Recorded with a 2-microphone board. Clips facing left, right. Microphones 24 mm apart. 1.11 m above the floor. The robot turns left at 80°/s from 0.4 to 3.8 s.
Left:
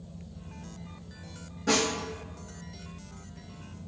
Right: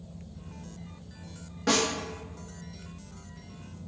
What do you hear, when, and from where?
1.7 s a snare drum: 45° right (ahead or behind), 1.1 m; by 1.9 s 60° right (ahead or behind), 1.1 m